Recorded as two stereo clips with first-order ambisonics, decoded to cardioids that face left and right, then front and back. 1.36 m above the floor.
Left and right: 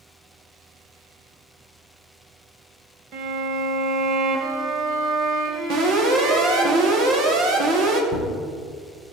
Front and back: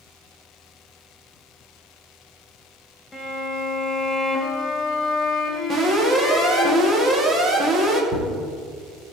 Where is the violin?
80° right, 1.7 m.